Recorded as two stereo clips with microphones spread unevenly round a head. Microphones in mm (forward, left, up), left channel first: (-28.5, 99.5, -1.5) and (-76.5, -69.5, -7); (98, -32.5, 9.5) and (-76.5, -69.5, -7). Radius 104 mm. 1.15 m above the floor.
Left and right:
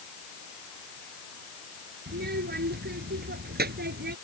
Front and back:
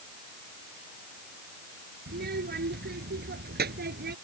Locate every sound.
2.1 s a child speaking: 135° right